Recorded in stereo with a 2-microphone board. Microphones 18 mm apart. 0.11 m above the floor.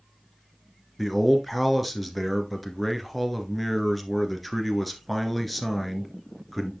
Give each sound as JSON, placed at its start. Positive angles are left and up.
{"t": 1.0, "sound": "a man speaking", "side_deg": 0, "distance_m": 1.3}